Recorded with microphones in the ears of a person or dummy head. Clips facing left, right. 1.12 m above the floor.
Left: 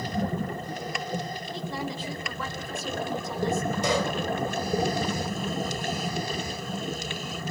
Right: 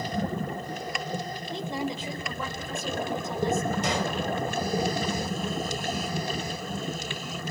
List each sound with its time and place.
1.5 s a woman speaking: 20° right (ahead or behind), 3.5 m
3.8 s a pop: 85° left, 3.5 m